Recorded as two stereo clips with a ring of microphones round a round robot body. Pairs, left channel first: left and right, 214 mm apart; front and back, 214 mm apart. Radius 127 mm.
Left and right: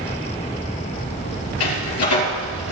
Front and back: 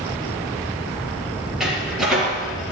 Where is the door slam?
90° left, 5.5 m.